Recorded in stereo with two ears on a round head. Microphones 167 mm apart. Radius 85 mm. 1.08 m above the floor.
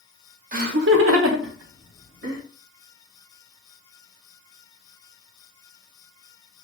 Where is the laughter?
40° right (ahead or behind), 0.6 m; by 2.4 s 70° right (ahead or behind), 1.2 m.